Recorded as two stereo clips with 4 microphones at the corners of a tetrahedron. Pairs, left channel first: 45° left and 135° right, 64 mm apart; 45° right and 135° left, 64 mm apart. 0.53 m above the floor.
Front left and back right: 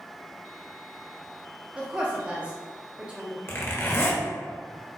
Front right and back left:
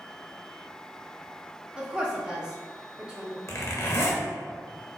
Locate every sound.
1.8 s a woman speaking: 175° right, 1.1 m
3.5 s a zipper: 5° right, 0.9 m